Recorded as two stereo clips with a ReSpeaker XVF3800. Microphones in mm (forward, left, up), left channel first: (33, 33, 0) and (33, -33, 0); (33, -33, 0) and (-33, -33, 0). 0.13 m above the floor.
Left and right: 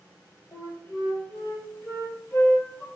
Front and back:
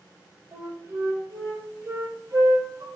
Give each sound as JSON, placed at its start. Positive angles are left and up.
{"t": 0.5, "sound": "a flute", "azimuth_deg": 135, "distance_m": 1.1}